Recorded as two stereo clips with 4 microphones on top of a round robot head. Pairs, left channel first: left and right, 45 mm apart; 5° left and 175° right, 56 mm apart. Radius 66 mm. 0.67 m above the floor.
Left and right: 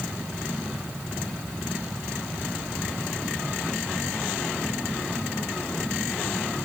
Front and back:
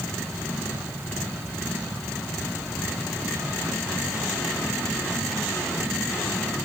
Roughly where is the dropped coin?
No dropped coin in this recording.